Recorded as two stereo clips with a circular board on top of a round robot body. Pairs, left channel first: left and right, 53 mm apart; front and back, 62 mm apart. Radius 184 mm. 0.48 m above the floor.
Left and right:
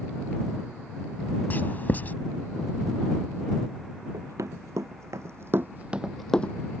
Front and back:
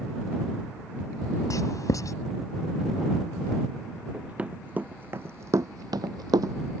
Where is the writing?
30° left.